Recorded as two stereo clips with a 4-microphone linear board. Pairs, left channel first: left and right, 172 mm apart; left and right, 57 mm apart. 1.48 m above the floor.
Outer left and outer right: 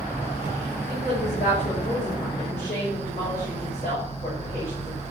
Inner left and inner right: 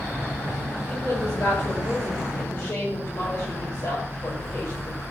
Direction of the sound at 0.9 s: 50° left (ahead or behind).